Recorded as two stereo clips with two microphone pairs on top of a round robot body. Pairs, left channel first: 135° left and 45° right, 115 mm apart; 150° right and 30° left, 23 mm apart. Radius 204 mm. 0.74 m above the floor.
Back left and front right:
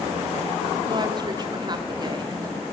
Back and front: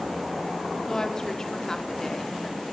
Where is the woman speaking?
95° right, 2.5 m.